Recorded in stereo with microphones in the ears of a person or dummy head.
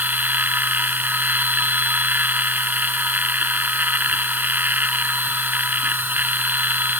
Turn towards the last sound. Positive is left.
turn(degrees=-10)  # may be behind; listen again after turning